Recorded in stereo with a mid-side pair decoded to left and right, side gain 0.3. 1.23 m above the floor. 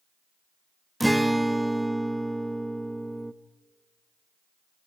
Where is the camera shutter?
I don't hear a camera shutter.